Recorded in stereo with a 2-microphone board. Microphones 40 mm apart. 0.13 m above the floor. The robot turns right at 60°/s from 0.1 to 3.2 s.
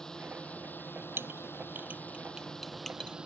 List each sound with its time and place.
0.0 s a drone: 15° left; by 3.2 s 155° right
1.2 s a clink: 75° right (ahead or behind); by 3.1 s 30° left (ahead or behind)